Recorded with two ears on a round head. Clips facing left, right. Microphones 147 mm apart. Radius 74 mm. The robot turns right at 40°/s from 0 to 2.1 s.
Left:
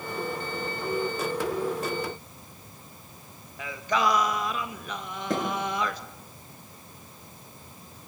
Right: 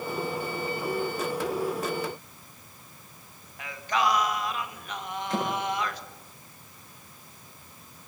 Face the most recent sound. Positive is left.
turn(degrees=40)  # may be behind; listen again after turning